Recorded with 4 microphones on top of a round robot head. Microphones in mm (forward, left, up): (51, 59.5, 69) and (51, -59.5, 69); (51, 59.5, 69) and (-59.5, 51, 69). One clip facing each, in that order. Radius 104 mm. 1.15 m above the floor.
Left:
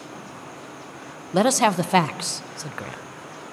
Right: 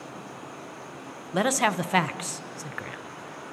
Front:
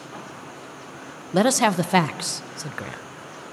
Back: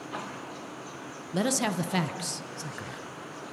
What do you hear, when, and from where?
1.3 s a man speaking: 30° left, 0.7 m